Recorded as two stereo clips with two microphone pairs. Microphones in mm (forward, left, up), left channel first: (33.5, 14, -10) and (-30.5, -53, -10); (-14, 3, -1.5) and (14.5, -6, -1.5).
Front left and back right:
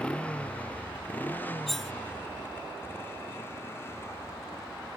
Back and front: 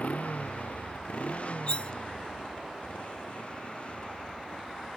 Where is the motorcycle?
125° left; by 5.0 s 110° left.